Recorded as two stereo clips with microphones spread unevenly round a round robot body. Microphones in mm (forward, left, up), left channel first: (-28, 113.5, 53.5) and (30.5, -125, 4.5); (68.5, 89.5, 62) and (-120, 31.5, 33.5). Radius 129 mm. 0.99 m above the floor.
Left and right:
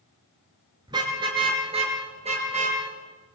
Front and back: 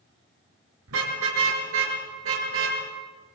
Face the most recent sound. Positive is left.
turn(degrees=-140)